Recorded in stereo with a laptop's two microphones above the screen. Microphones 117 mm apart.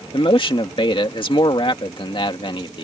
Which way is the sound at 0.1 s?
45° left (ahead or behind).